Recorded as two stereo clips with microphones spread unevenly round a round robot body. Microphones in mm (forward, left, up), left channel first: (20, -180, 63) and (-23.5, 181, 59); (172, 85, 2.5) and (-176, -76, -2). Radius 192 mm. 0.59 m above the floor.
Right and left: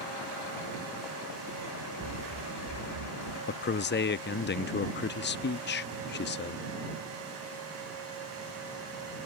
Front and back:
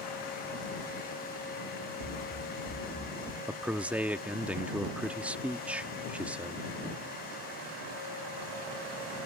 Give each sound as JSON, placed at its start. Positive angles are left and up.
{"t": 2.0, "sound": "running footsteps", "azimuth_deg": 70}
{"t": 3.5, "sound": "a man speaking", "azimuth_deg": -75}